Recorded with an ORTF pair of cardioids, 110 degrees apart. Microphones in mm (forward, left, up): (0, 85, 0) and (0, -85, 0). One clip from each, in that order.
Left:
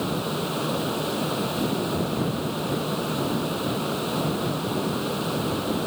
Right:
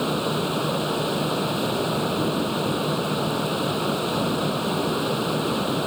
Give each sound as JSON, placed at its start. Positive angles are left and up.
{"t": 0.0, "sound": "a fan", "azimuth_deg": -45}